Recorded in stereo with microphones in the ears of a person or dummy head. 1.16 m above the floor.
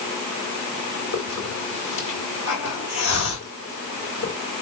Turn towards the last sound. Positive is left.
turn(degrees=80)